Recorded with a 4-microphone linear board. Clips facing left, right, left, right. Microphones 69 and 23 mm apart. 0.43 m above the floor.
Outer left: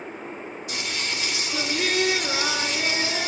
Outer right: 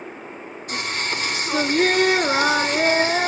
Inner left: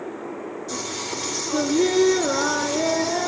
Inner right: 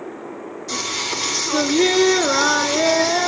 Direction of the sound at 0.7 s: 45° right (ahead or behind).